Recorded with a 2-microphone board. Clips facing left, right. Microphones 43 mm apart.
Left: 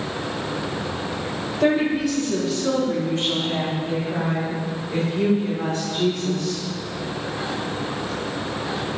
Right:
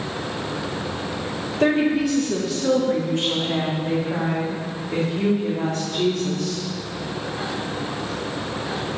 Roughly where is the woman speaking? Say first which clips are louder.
Right 1 dB; right.